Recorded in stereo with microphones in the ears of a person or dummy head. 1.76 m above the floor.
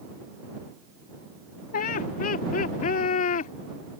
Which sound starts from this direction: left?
Laughter, at 1.7 s.